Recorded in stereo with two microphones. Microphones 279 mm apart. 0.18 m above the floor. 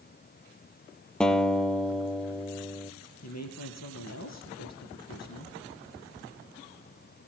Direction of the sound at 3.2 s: 70° left (ahead or behind).